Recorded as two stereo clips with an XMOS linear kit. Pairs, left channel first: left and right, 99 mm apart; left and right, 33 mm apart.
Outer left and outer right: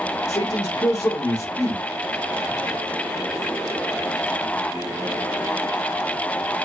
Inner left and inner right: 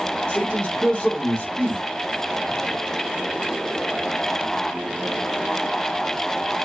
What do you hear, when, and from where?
0.3 s a man speaking: 35° left (ahead or behind), 2.5 m